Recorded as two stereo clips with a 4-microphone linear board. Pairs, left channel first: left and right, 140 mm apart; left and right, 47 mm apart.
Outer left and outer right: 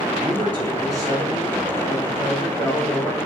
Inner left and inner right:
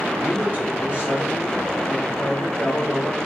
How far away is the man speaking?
About 2.0 m.